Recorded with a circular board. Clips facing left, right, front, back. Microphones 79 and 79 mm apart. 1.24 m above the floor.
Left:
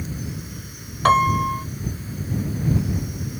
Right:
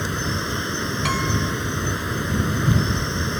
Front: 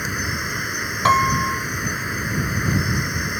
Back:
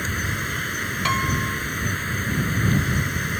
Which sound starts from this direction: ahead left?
A piano, at 1.1 s.